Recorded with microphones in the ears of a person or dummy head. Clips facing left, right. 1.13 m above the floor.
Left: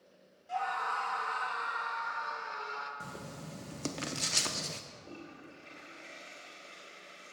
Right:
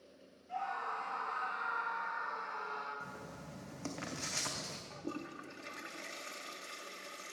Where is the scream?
75° left (ahead or behind), 1.3 m; by 2.9 s 35° left (ahead or behind), 2 m.